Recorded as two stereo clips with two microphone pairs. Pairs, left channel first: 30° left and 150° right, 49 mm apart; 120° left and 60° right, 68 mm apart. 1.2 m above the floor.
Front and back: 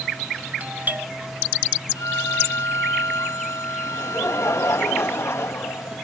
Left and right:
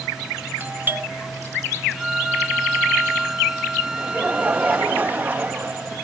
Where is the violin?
20° left.